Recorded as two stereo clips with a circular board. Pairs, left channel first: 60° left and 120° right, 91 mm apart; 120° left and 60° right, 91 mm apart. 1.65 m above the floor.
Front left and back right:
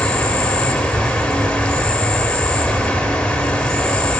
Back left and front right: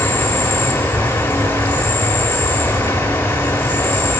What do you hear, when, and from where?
0.0 s an insect: 125° left, 1.3 m